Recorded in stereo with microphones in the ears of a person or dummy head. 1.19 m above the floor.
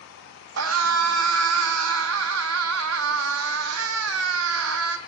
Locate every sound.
0.6 s a scream: 75° right (ahead or behind), 0.8 m